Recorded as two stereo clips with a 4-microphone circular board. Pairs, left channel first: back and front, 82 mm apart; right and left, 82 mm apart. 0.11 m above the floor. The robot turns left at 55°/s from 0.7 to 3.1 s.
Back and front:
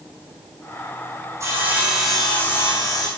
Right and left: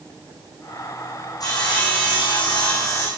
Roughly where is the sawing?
Ahead right.